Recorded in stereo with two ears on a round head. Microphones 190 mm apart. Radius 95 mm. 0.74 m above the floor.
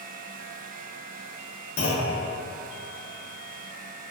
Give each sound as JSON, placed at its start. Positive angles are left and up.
{"t": 1.8, "sound": "a clunk", "side_deg": 40, "distance_m": 0.6}